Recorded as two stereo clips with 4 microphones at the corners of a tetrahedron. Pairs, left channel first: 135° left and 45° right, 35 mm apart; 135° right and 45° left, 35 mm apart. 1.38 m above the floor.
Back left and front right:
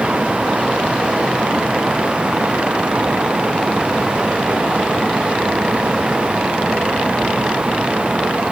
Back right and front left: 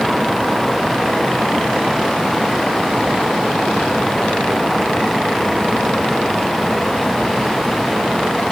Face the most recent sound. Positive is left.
No sound to turn to.